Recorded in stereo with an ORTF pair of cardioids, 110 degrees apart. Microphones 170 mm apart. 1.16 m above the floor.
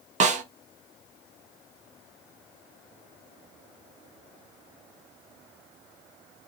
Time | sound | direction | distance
0.2 | a snare drum | 45° right | 0.7 m